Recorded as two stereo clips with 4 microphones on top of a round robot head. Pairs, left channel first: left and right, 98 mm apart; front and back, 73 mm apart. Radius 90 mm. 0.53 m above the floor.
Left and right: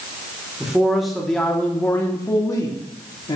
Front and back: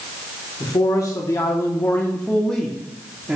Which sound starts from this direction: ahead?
A man speaking, at 0.6 s.